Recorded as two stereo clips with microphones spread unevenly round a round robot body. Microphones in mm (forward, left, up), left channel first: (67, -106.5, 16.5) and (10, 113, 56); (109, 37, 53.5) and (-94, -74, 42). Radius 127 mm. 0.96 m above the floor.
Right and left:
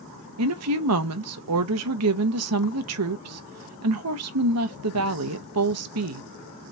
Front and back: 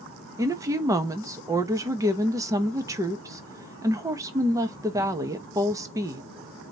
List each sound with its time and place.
0.4 s a woman speaking: 130° left, 0.7 m